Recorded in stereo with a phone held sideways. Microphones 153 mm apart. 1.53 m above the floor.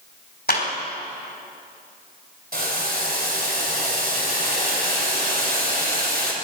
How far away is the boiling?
About 2.5 m.